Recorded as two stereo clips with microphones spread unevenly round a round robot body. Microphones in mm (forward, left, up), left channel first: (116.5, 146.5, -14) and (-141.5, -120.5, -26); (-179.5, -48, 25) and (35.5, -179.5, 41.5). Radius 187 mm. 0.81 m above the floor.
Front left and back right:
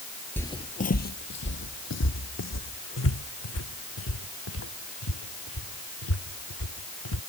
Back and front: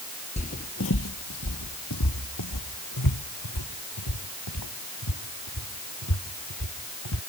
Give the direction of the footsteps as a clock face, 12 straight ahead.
8 o'clock.